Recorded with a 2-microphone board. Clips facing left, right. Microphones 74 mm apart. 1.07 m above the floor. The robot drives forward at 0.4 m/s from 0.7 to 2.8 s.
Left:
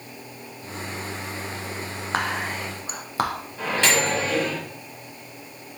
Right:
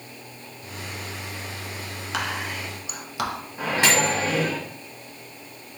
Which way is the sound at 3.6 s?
10° right (ahead or behind).